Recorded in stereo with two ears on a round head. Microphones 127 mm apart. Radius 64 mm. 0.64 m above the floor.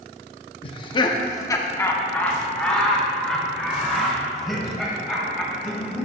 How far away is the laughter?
About 0.8 m.